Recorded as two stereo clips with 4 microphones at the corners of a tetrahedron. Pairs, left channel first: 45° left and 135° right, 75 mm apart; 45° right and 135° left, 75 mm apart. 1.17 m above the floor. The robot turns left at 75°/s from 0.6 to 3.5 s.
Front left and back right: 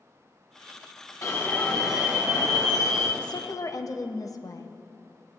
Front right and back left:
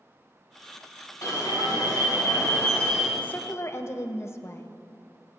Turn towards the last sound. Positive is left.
turn(degrees=5)